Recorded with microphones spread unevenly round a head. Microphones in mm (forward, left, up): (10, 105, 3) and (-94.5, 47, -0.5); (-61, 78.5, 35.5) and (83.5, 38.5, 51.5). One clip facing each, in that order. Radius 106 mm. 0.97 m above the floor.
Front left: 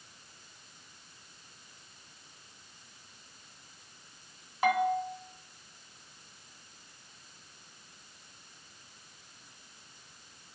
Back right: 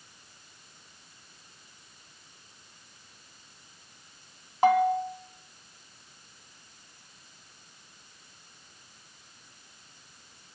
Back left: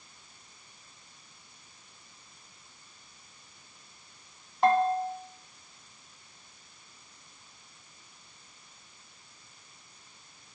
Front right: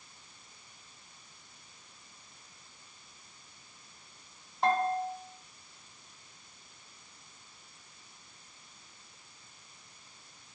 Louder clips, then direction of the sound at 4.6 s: Back right 5 dB, back left 5 dB; 160° left.